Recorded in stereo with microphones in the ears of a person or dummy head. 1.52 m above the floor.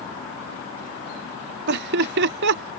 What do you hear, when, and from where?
1.7 s laughter: 70° right (ahead or behind)